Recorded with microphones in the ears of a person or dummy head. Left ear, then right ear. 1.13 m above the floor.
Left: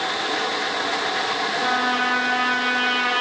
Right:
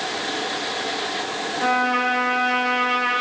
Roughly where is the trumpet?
Left.